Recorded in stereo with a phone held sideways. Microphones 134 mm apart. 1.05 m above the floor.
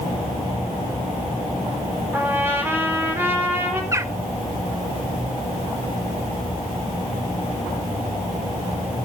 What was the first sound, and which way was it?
A trumpet, 15° right (ahead or behind).